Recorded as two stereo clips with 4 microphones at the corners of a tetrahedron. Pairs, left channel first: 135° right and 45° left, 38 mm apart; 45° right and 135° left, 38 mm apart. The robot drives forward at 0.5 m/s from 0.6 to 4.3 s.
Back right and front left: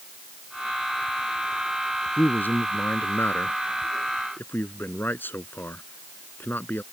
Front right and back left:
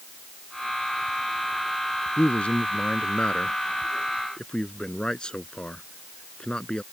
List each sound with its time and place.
2.2 s a man speaking: 100° right; by 6.8 s 110° right